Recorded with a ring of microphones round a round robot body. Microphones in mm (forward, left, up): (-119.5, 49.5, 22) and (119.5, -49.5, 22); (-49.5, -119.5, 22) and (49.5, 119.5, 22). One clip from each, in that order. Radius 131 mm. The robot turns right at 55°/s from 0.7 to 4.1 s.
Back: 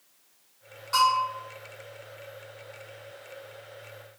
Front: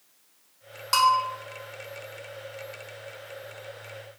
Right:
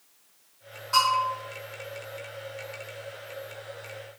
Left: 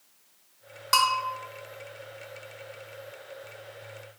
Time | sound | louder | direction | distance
0.9 | a bell | front 2 dB, even | 30° left | 0.6 m